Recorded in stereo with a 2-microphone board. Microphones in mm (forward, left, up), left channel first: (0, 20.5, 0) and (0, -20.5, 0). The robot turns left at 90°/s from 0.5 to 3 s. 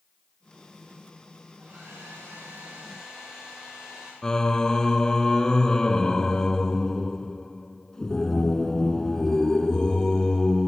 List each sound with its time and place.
1.6 s a hair dryer: 45° right, 8.5 m; by 4.1 s 175° right, 8.5 m
4.2 s singing: 15° left (ahead or behind), 0.6 m